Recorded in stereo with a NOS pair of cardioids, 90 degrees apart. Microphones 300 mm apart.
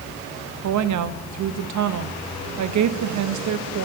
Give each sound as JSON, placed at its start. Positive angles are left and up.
{"t": 0.6, "sound": "a woman speaking", "azimuth_deg": -65, "distance_m": 1.3}